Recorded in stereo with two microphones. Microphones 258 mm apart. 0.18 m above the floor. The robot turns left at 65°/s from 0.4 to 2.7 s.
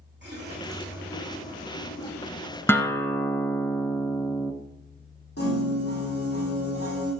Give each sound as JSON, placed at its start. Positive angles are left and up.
{"t": 0.2, "sound": "a running tap", "azimuth_deg": -135, "distance_m": 6.5}
{"t": 2.7, "sound": "a guitar", "side_deg": 10, "distance_m": 1.1}
{"t": 5.4, "sound": "a piano", "side_deg": 70, "distance_m": 8.0}